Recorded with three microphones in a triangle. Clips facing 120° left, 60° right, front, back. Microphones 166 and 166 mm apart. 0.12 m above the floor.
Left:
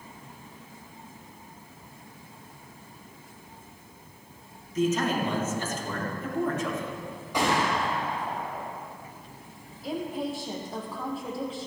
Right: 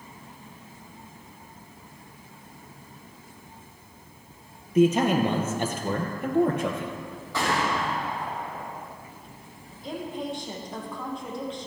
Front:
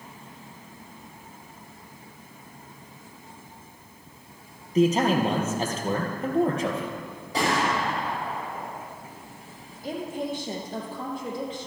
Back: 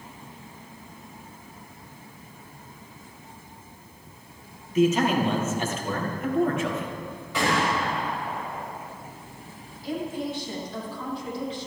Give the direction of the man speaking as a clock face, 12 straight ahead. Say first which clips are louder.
Right 6 dB, even; 2 o'clock.